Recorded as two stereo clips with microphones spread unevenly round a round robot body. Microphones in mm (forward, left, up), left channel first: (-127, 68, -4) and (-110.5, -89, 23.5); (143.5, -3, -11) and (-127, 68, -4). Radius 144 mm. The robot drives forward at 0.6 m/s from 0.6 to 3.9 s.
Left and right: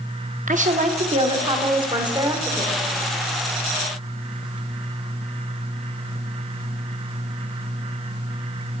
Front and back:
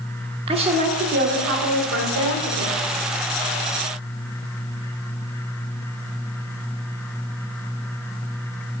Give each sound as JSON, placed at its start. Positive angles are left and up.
{"t": 0.5, "sound": "a woman speaking", "azimuth_deg": -125, "distance_m": 1.1}